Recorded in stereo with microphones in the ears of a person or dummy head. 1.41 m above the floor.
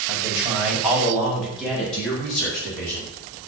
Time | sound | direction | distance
0.1 | a man speaking | 15° right (ahead or behind) | 6 m